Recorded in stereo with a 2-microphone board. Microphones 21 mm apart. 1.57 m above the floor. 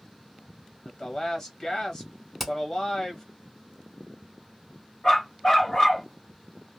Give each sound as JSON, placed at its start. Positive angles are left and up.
{"t": 0.8, "sound": "a woman speaking", "side_deg": 35, "distance_m": 0.8}
{"t": 2.4, "sound": "hammering", "side_deg": 0, "distance_m": 1.4}
{"t": 5.0, "sound": "a dog barking", "side_deg": 35, "distance_m": 1.2}